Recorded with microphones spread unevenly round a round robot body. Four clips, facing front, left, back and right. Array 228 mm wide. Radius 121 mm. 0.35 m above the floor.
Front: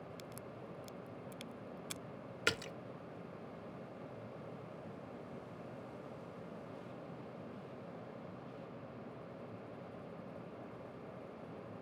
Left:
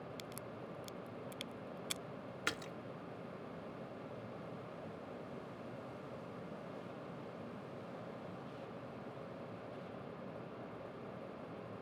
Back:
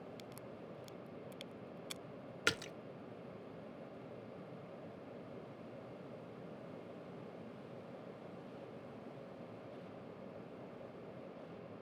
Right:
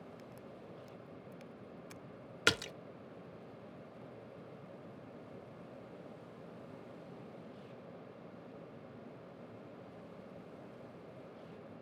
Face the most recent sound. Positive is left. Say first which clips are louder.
# right 9 dB, front 1 dB
turn(degrees=-75)